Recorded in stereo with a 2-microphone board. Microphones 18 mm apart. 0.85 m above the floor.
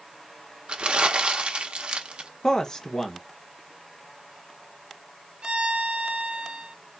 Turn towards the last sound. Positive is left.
turn(degrees=-60)  # may be behind; listen again after turning